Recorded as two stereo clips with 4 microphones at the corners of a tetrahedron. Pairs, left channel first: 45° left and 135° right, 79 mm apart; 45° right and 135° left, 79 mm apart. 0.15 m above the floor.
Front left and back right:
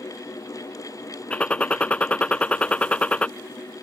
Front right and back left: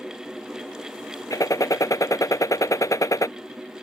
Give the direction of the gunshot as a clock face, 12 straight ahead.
1 o'clock.